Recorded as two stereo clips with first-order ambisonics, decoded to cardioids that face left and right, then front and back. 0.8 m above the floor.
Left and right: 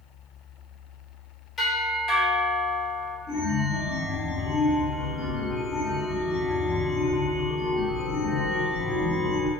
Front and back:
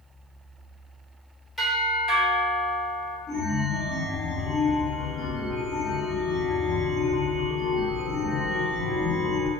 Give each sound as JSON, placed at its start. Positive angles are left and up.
{"t": 1.6, "sound": "a doorbell", "azimuth_deg": 85, "distance_m": 1.3}
{"t": 3.3, "sound": "a chime", "azimuth_deg": 55, "distance_m": 0.6}